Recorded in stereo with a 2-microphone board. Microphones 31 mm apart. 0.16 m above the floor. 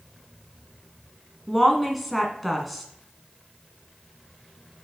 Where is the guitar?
I don't hear a guitar.